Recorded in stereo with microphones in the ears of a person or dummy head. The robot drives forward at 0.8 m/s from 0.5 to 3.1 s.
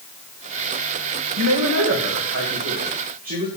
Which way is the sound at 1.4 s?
80° right.